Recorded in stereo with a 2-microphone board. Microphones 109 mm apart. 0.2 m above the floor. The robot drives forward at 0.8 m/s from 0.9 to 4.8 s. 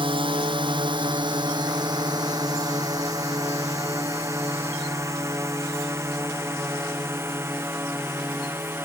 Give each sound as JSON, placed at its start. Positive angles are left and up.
{"t": 0.0, "sound": "a drone", "side_deg": -50}